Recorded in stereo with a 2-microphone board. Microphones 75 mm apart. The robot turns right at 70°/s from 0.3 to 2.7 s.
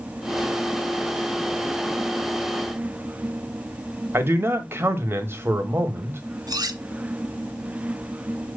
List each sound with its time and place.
4.1 s a man speaking: 30° right (ahead or behind), 1.4 m
6.5 s cutlery clinking: 60° right (ahead or behind), 1.3 m